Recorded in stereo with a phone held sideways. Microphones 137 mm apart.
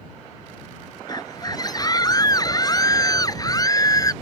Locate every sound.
1.1 s a scream: 30° left (ahead or behind); by 4.1 s 25° left (ahead or behind)